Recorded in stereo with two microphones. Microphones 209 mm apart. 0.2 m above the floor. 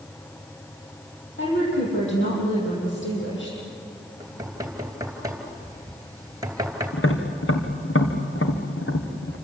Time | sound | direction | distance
1.4 | a woman speaking | 65° left (ahead or behind) | 8.5 m
4.2 | knocking | 15° right (ahead or behind) | 2.5 m
6.9 | tapping | 80° left | 3 m